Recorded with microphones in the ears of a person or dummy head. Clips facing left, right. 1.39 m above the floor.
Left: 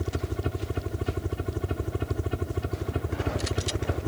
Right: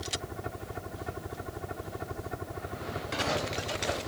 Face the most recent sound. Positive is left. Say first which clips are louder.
# left 7 dB
turn(degrees=40)  # may be behind; listen again after turning